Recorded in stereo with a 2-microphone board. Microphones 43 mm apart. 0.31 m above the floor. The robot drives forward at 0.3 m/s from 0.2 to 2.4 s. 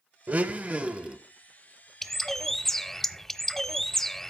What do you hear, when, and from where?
0.3 s a blender: 40° right (ahead or behind), 0.6 m; by 1.2 s 30° right (ahead or behind), 0.8 m
2.0 s a bird: 5° left (ahead or behind), 0.7 m; by 4.3 s 10° left (ahead or behind), 0.6 m